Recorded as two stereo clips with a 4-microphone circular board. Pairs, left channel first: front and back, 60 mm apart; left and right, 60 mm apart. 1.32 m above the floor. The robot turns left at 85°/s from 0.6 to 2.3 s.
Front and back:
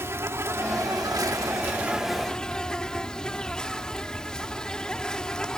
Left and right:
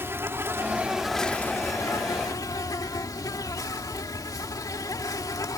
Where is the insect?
135° right; by 5.6 s 80° left.